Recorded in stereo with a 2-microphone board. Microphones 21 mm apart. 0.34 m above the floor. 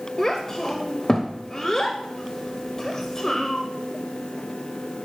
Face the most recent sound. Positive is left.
turn(degrees=30)  # may be behind; listen again after turning